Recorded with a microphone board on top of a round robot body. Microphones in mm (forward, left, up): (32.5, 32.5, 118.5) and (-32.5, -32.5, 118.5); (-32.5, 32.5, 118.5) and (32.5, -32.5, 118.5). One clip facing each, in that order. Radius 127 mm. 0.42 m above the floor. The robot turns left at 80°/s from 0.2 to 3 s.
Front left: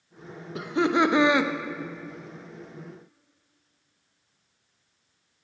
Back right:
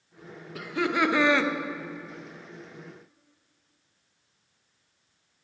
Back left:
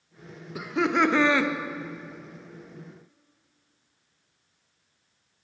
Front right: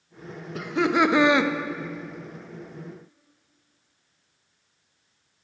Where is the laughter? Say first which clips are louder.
Front left 4 dB, front right 2 dB; 65° left, 0.8 m; by 1.5 s 15° right, 0.8 m.